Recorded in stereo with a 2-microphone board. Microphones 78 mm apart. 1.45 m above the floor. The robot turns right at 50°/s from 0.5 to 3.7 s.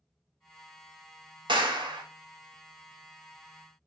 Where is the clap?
85° right, 0.7 m; by 2.0 s 65° right (ahead or behind), 0.7 m.